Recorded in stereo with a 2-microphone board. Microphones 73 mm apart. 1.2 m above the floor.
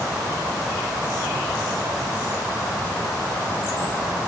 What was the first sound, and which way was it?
Only background noise.